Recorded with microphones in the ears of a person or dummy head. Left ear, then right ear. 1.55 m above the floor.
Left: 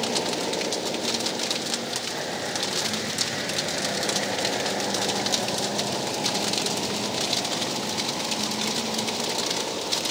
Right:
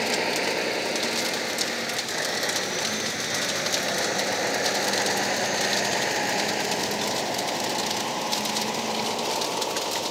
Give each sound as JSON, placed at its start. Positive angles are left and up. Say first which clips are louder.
{"t": 0.0, "sound": "a vehicle", "louder": "right 2 dB", "side_deg": -60}